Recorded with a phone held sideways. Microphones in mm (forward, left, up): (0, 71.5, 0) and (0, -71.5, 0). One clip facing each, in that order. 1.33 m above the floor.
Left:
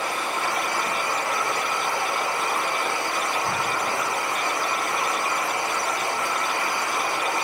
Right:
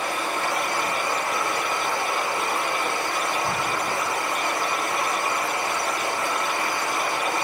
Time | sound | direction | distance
0.0 | running water | 55° right (ahead or behind) | 1.7 m